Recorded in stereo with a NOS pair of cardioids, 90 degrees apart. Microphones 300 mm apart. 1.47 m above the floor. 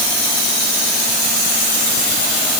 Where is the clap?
I don't hear a clap.